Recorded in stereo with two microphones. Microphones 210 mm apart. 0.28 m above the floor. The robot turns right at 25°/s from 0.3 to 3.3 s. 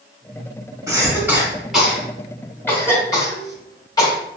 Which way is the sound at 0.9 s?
15° right (ahead or behind).